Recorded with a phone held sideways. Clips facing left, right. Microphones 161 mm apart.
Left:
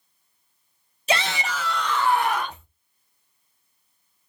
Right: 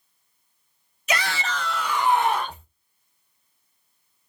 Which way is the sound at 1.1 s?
30° left (ahead or behind).